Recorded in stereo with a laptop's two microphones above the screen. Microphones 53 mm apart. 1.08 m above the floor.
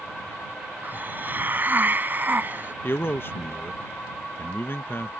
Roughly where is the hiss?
Right.